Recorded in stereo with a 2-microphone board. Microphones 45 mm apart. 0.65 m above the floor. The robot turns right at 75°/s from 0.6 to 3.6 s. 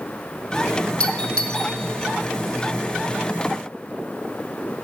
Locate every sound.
1.0 s a doorbell: 25° left (ahead or behind), 1.1 m; by 1.7 s 15° left (ahead or behind), 1.1 m